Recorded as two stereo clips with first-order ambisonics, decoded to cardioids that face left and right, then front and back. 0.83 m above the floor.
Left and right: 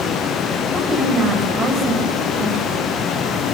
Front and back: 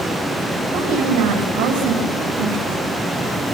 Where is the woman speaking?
160° right, 4.5 m.